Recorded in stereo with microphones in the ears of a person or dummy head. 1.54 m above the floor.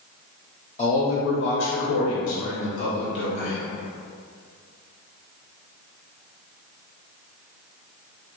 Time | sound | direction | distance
0.8 | a man speaking | 30° left (ahead or behind) | 0.7 m